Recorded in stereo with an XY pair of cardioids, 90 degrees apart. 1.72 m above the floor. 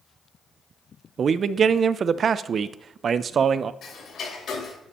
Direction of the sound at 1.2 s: 55° right.